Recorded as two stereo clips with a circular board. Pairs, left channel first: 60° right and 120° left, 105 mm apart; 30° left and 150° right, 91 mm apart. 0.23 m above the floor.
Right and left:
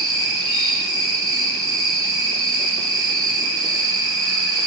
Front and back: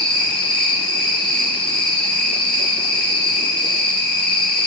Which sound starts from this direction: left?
An insect, at 0.0 s.